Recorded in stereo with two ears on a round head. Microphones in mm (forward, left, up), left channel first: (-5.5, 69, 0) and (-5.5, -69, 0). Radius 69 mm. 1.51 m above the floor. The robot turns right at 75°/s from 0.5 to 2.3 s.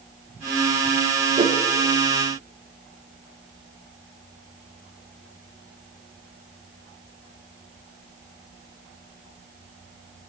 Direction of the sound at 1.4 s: 40° right (ahead or behind).